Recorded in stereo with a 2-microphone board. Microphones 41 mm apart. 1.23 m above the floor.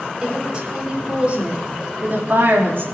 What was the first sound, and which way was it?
A woman speaking, 20° right (ahead or behind).